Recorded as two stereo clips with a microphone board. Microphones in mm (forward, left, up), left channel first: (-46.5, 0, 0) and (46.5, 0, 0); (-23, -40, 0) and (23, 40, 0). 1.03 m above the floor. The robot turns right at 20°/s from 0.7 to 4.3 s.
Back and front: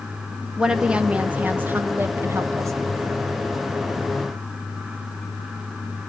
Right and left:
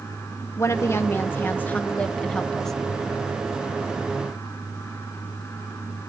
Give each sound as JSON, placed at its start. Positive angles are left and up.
{"t": 0.6, "sound": "a woman speaking", "azimuth_deg": -75, "distance_m": 0.9}